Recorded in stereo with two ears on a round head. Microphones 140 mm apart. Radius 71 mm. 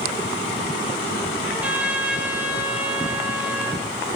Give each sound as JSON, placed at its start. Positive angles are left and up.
{"t": 1.4, "sound": "a trumpet", "side_deg": -10, "distance_m": 5.5}